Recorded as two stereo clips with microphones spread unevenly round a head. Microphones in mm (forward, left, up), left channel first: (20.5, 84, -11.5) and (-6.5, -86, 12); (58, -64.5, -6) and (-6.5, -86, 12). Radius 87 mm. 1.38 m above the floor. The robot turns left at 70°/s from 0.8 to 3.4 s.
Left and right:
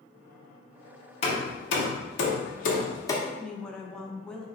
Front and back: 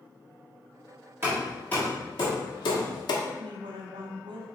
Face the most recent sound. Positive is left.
turn(degrees=165)